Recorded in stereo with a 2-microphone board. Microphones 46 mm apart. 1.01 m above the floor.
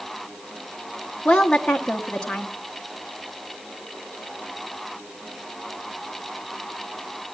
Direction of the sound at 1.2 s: 15° left (ahead or behind).